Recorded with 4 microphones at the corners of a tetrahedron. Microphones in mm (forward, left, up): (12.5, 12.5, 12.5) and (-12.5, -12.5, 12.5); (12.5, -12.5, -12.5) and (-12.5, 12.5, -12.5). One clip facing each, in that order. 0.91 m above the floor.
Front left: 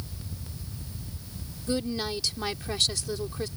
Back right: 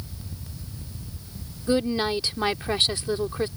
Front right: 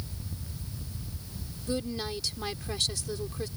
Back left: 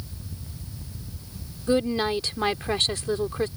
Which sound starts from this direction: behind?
A woman speaking, at 1.7 s.